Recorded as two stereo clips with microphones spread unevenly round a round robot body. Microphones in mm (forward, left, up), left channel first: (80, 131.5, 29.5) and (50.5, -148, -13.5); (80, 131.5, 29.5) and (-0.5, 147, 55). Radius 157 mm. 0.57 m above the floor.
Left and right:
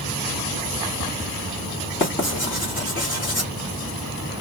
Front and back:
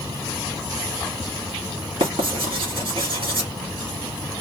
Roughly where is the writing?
Behind.